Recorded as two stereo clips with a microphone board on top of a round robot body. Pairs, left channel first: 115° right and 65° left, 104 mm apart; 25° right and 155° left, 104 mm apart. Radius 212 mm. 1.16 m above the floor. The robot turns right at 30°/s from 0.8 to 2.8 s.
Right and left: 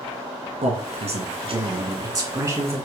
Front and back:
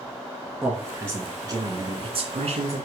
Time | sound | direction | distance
0.6 | a man speaking | 80° left | 2.5 m